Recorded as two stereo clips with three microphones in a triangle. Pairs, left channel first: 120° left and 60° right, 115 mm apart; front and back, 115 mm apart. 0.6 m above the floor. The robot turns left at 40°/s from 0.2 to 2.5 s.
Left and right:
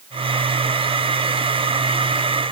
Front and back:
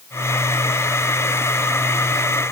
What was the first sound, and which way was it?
Only background noise.